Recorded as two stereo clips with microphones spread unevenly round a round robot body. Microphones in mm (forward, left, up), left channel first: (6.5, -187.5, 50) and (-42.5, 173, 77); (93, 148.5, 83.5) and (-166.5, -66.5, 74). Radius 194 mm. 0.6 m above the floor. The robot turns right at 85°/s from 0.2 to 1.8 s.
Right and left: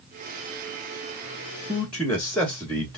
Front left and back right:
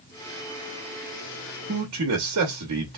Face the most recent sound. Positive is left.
turn(degrees=-165)